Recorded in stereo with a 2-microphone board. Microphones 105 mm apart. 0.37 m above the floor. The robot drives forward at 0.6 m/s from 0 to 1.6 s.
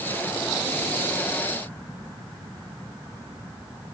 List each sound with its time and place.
Only background noise.